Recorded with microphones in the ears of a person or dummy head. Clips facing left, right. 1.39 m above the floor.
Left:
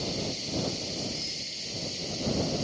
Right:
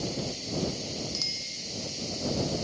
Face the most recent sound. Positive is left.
turn(degrees=-75)  # may be behind; listen again after turning